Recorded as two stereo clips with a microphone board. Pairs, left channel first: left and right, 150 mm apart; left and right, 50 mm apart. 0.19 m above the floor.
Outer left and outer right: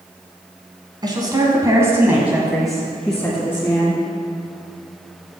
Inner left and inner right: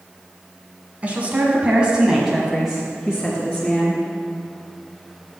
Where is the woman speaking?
30° right (ahead or behind), 1.9 m; by 4.0 s 15° left (ahead or behind), 2.5 m.